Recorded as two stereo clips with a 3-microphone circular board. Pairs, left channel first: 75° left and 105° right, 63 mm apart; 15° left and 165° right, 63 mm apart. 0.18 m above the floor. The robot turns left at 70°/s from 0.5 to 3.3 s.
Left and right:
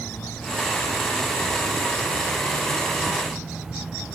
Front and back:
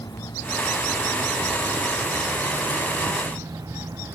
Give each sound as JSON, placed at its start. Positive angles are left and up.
{"t": 0.0, "sound": "an insect", "azimuth_deg": 5}